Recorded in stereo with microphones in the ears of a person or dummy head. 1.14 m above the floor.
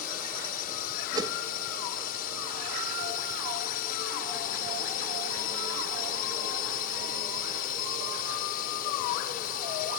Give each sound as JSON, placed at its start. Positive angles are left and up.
{"t": 0.0, "sound": "a drone", "side_deg": 50}
{"t": 1.1, "sound": "a whoosh", "side_deg": -25}